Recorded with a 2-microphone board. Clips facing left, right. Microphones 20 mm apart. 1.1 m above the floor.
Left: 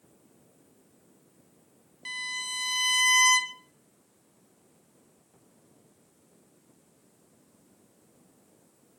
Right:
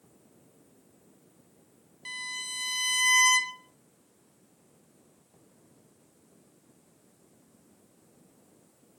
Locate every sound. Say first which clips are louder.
2.0 s a violin: left 3 dB; 5° left (ahead or behind), 0.9 m